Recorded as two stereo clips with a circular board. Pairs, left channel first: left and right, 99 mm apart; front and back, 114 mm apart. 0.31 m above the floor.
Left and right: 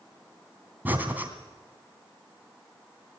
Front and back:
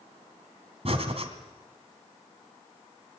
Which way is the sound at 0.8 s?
160° right.